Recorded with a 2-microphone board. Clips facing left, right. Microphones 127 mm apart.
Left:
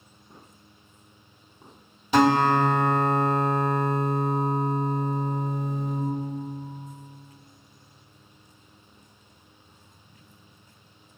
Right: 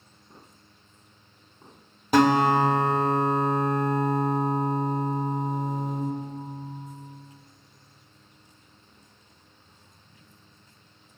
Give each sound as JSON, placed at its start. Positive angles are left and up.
{"t": 2.1, "sound": "a guitar", "side_deg": -50, "distance_m": 1.3}